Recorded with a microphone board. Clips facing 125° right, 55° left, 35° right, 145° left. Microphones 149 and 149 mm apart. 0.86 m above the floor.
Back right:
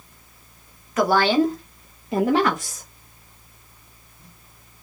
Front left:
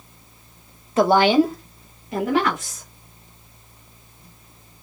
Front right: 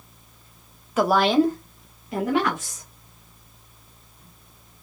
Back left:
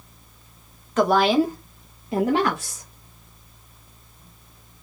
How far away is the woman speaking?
About 0.8 m.